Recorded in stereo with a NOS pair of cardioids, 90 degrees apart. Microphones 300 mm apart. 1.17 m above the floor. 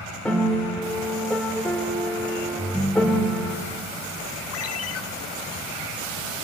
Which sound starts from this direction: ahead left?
A ringtone, at 4.5 s.